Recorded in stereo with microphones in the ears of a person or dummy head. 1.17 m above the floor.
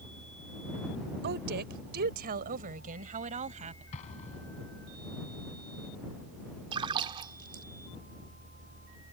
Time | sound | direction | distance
1.2 | a woman speaking | 60° right (ahead or behind) | ?
3.9 | an explosion | 40° left (ahead or behind) | ?
6.7 | a splash | 30° right (ahead or behind) | ?